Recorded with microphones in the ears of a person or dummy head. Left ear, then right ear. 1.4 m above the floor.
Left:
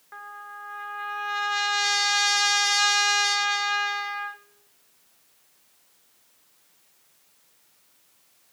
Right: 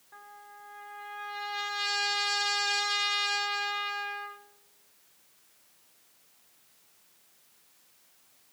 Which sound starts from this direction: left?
A trumpet, at 0.1 s.